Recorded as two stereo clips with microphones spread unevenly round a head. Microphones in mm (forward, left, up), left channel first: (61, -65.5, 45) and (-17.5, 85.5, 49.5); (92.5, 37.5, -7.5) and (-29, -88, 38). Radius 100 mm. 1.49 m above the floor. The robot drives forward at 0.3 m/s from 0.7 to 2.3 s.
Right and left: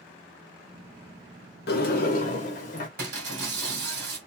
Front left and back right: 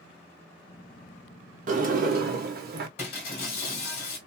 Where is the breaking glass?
105° left, 2 m.